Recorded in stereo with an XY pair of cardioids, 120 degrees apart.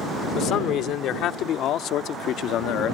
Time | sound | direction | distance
0.3 | a man speaking | 65° left | ?